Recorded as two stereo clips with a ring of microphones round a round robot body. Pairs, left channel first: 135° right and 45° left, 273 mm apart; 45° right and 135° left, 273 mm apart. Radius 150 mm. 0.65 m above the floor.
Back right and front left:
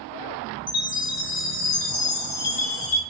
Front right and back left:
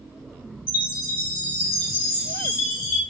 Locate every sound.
0.7 s a chime: 75° right, 4 m